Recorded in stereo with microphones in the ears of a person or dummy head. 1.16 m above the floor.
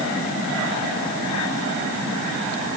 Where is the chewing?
No chewing in this recording.